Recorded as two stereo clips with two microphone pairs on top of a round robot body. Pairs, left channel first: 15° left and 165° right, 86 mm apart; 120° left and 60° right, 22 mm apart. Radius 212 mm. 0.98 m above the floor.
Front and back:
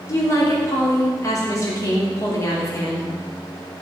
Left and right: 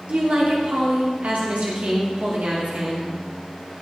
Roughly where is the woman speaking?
Ahead right.